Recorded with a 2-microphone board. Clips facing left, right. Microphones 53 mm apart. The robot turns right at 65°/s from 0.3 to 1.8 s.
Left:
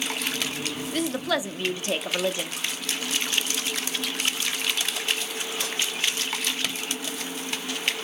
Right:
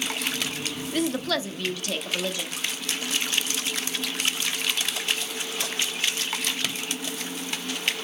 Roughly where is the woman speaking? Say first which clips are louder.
Even; ahead.